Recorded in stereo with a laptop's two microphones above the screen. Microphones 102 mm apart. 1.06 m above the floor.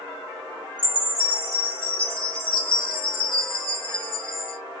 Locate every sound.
0.8 s a chime: 55° left (ahead or behind), 1.0 m